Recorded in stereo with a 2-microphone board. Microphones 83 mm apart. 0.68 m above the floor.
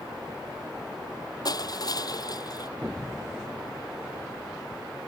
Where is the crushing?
50° left (ahead or behind).